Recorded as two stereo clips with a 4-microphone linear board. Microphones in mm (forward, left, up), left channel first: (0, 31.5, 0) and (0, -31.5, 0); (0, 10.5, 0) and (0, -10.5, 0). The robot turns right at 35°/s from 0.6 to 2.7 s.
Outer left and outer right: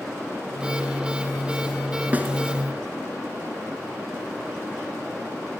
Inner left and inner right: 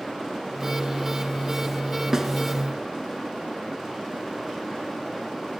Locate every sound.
2.1 s a snare drum: 25° right (ahead or behind), 1.5 m